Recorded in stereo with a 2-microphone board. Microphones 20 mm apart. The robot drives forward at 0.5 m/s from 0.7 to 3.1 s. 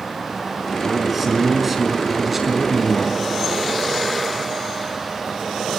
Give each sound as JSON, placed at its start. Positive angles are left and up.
{"t": 0.8, "sound": "a man speaking", "side_deg": -10, "distance_m": 4.5}